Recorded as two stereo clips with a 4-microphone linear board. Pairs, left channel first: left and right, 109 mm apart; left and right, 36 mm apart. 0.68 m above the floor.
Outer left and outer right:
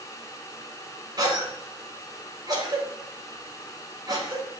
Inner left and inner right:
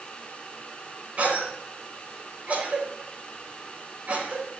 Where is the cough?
40° right (ahead or behind), 3.5 m.